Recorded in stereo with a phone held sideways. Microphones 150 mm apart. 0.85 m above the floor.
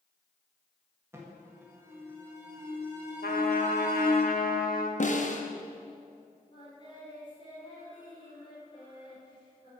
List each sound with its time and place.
1.1 s an alarm: 15° right (ahead or behind), 1.6 m
3.2 s a trumpet: 75° left (ahead or behind), 0.9 m
5.0 s a snare drum: 55° left (ahead or behind), 0.9 m
6.5 s singing: 35° left (ahead or behind), 3 m